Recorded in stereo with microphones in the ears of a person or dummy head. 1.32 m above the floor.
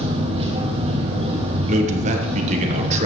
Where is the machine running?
30° right (ahead or behind), 1.6 m.